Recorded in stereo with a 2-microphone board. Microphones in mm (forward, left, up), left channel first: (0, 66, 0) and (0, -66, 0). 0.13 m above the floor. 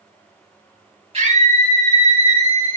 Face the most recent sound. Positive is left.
turn(degrees=-45)  # may be behind; listen again after turning